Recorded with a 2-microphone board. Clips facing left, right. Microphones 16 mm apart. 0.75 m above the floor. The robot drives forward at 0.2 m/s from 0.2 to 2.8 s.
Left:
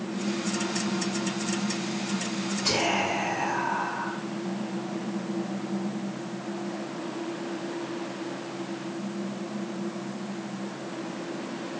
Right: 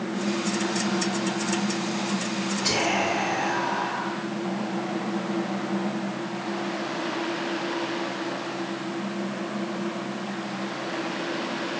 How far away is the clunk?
I don't hear a clunk.